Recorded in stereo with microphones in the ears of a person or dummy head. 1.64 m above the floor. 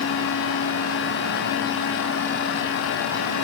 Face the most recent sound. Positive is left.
No sound to turn to.